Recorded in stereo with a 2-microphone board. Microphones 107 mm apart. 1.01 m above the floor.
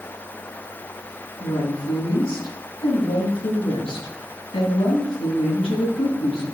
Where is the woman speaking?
65° left (ahead or behind), 9 m.